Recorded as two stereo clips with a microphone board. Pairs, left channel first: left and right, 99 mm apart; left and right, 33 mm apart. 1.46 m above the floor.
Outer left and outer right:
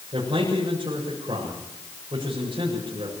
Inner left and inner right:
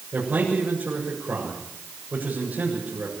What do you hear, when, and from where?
0.1 s a man speaking: 60° right (ahead or behind), 7 m